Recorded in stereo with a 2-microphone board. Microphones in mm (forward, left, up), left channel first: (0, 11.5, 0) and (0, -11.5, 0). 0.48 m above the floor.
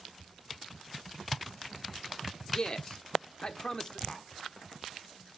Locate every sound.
2.5 s a man speaking: 30° left (ahead or behind), 1.0 m
4.1 s tapping: 30° left (ahead or behind), 1.6 m